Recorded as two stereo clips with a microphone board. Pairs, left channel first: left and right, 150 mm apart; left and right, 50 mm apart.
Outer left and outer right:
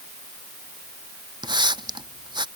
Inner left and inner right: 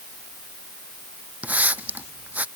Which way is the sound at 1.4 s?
30° right (ahead or behind).